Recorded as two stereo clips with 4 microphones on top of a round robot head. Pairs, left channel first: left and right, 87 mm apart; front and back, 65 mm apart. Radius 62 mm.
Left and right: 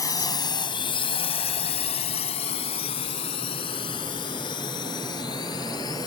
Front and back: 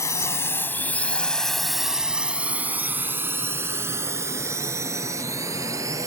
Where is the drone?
40° left; by 6.1 s 145° left.